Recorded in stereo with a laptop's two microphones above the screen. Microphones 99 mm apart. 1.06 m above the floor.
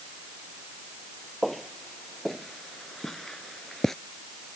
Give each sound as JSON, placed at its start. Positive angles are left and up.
{"t": 1.4, "sound": "footsteps", "side_deg": 0}